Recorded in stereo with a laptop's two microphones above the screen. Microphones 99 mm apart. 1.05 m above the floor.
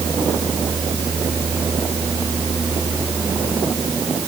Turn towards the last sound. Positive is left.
No sound to turn to.